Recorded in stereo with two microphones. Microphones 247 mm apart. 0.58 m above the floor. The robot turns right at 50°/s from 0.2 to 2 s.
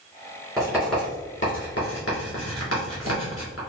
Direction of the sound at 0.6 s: 15° right (ahead or behind).